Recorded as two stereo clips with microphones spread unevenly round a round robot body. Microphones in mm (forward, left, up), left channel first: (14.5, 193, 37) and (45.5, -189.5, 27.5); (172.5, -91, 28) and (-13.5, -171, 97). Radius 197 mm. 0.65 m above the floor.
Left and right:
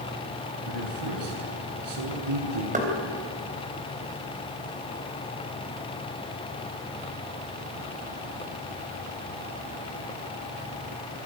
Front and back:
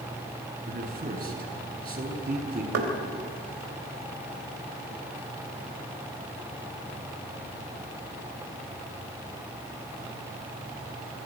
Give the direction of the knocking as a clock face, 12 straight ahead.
5 o'clock.